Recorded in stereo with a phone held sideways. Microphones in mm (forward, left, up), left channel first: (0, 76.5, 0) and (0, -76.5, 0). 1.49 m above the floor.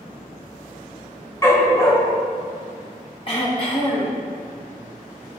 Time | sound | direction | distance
1.4 | a dog barking | 20° left (ahead or behind) | 1.6 m
3.3 | throat clearing | 40° left (ahead or behind) | 1.9 m